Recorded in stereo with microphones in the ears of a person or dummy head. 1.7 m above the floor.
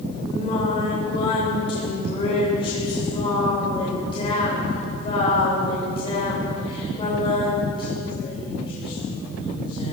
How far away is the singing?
About 7.5 m.